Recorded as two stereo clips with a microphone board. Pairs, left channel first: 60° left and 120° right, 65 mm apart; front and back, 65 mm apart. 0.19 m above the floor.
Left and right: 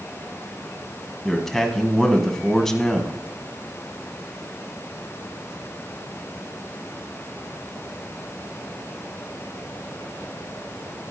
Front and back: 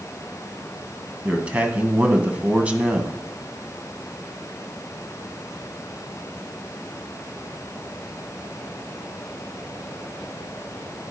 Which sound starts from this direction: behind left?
A man speaking, at 1.2 s.